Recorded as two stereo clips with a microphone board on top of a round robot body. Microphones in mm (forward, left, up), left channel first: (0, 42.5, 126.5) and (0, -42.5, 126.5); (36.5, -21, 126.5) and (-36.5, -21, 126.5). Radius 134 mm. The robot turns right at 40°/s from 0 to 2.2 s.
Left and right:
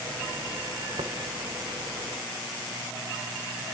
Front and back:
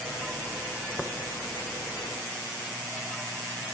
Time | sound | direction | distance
1.0 | tapping | 75° right | 1.0 m